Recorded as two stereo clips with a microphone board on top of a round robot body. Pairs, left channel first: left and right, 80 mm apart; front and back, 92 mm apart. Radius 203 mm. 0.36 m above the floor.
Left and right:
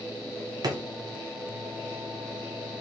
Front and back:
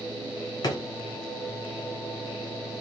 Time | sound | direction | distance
0.6 | a drawer | 50° right | 0.6 m